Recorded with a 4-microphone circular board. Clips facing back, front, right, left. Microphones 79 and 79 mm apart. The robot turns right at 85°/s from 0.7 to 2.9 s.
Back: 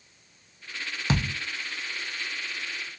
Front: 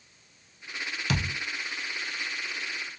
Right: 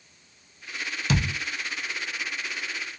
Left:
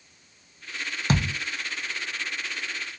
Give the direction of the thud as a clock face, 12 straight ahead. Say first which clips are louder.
Back 4 dB, left 1 dB; 8 o'clock.